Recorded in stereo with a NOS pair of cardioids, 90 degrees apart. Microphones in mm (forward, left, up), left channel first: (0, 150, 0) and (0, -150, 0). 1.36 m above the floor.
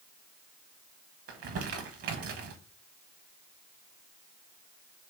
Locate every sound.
1.3 s crumpling: 50° right, 0.9 m